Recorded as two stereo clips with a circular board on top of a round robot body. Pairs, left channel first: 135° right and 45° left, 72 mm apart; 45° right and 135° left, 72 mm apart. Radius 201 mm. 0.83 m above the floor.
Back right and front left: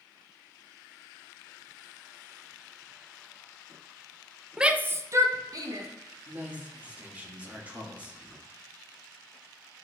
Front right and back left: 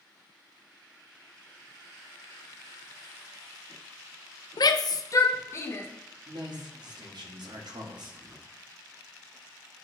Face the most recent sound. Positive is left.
turn(degrees=115)